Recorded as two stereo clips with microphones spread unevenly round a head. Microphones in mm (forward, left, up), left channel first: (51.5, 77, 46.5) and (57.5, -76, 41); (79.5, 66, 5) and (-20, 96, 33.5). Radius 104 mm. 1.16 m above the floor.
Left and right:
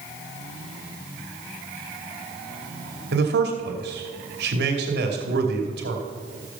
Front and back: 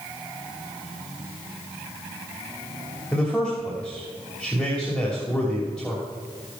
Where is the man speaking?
100° right, 2.5 m.